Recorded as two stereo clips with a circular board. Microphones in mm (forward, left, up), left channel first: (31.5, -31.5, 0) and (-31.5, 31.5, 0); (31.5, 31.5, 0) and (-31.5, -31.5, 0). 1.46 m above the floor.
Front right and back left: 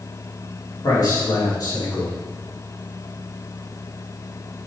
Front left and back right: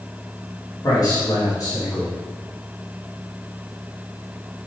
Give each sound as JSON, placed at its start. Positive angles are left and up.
{"t": 0.8, "sound": "a man speaking", "azimuth_deg": 0, "distance_m": 3.5}